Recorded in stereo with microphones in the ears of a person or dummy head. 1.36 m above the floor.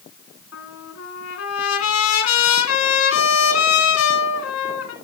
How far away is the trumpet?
About 2.5 m.